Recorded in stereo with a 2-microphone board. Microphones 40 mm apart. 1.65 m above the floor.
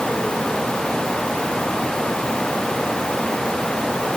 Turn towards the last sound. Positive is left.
No sound to turn to.